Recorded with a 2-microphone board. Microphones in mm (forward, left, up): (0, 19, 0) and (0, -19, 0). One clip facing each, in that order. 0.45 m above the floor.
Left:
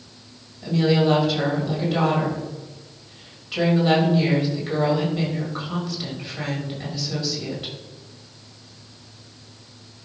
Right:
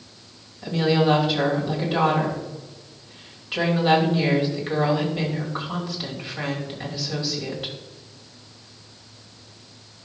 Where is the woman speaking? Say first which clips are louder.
Left 1 dB; 15° right (ahead or behind), 2.5 m.